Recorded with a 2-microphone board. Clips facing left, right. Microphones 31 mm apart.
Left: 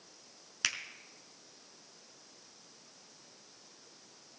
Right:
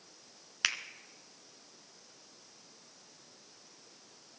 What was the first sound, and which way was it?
A finger snap, 15° right (ahead or behind).